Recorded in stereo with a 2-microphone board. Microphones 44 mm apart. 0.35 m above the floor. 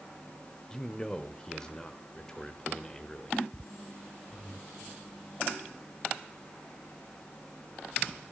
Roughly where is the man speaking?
Centre.